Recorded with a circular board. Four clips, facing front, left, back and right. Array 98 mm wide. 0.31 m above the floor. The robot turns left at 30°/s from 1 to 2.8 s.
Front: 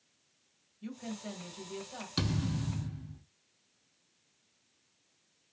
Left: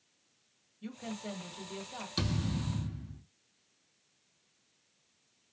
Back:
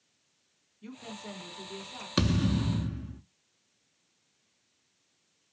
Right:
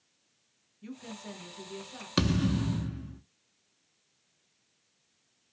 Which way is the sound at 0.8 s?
80° left.